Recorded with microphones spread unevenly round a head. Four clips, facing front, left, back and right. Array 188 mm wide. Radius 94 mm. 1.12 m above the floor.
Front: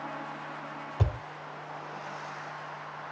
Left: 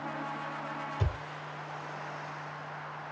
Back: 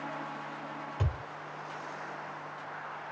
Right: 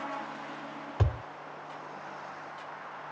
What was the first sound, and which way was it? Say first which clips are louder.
A thud: right 3 dB, front 5 dB; 65° right.